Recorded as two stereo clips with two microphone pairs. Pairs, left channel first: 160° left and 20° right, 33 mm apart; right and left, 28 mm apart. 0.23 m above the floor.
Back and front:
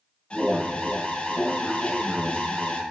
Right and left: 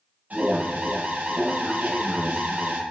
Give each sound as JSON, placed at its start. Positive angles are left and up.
{"t": 0.3, "sound": "an alarm", "azimuth_deg": 105, "distance_m": 9.5}